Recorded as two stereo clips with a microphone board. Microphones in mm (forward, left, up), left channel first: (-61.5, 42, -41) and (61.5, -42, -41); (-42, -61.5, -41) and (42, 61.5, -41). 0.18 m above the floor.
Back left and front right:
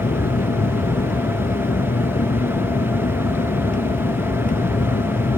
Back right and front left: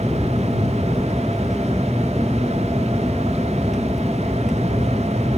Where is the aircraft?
145° left.